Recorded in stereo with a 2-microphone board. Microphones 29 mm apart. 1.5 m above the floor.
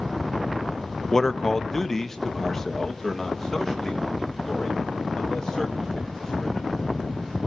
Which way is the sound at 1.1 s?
20° left (ahead or behind).